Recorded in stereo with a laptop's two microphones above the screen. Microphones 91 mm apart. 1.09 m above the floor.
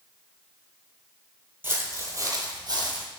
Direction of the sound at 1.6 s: 25° right (ahead or behind).